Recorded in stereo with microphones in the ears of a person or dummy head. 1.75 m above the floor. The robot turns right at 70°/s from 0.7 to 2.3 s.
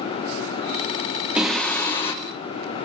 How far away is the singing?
About 1.7 m.